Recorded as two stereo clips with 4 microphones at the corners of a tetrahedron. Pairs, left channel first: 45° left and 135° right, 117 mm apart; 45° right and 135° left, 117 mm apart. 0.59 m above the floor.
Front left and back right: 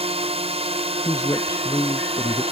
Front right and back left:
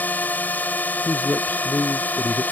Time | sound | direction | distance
0.0 | a drone | 120° right | ?
1.1 | a man speaking | 5° left | ?